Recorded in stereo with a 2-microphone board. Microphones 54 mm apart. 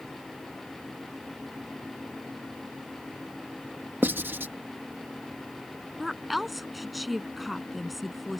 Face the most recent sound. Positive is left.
turn(degrees=0)  # may be behind; listen again after turning